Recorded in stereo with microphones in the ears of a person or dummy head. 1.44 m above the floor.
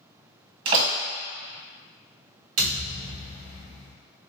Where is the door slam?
30° right (ahead or behind), 1.3 m.